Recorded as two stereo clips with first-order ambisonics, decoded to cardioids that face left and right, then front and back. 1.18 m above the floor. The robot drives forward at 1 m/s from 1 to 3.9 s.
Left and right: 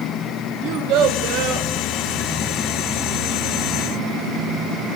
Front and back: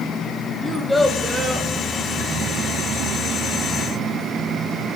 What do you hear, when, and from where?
0.6 s a child speaking: 80° right, 0.9 m; by 1.7 s 125° right, 1.1 m